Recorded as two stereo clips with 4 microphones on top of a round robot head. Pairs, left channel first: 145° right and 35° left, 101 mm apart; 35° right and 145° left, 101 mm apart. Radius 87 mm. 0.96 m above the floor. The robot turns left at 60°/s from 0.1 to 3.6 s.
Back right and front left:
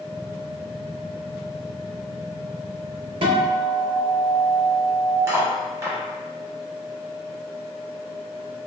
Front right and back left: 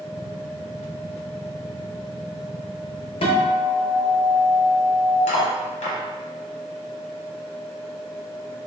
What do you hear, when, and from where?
3.2 s a guitar: straight ahead, 0.5 m; by 5.2 s 25° right, 0.5 m
5.3 s cutlery clinking: 30° right, 0.7 m